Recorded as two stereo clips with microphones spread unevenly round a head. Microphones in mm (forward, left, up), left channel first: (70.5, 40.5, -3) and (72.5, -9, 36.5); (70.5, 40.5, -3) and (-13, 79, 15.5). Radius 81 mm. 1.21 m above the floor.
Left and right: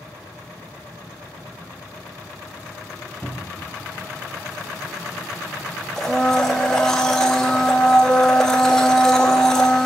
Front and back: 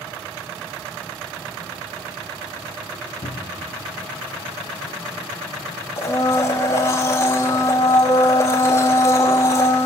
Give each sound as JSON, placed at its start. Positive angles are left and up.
{"t": 3.2, "sound": "a cupboard door", "azimuth_deg": 10, "distance_m": 1.1}
{"t": 6.0, "sound": "a blender", "azimuth_deg": -85, "distance_m": 0.6}